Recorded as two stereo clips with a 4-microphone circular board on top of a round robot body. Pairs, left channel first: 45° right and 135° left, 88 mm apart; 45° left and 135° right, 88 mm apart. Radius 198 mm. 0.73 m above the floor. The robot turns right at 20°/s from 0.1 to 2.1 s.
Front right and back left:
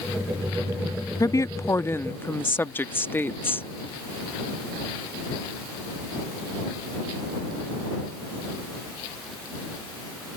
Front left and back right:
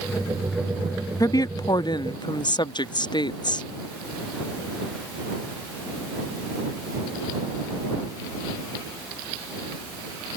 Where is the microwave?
I don't hear a microwave.